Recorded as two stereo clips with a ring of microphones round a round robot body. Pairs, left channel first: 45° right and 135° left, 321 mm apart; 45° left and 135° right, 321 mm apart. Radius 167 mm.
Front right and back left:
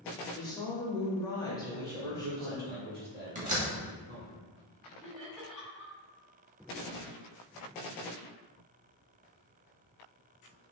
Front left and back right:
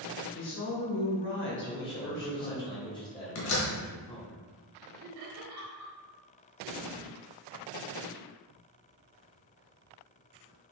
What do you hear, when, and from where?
0.3 s a woman speaking: 25° left, 1.5 m
1.6 s a man speaking: 110° left, 1.7 m
3.4 s a door slam: 70° left, 1.4 m
5.0 s laughter: 135° right, 1.5 m